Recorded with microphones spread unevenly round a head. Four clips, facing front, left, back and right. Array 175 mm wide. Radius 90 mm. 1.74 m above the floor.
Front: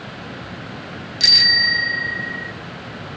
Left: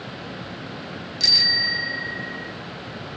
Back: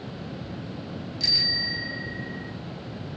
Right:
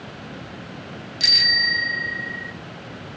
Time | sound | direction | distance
1.2 | a bicycle bell | 10° right | 2 m